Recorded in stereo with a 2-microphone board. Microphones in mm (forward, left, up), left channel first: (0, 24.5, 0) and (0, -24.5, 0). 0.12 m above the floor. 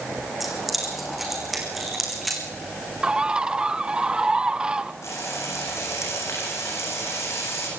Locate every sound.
0.4 s keys jangling: 5° right (ahead or behind), 5 m; by 2.4 s centre (ahead or behind), 6 m
3.0 s a bird: 20° right (ahead or behind), 0.6 m
5.0 s frying: 80° left, 8.5 m